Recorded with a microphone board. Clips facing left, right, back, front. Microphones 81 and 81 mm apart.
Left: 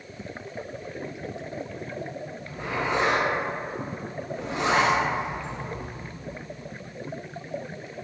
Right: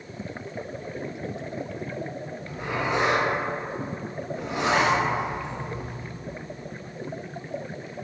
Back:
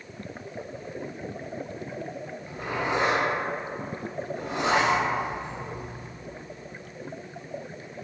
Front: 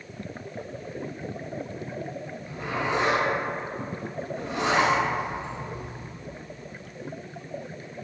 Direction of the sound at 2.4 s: 150° right.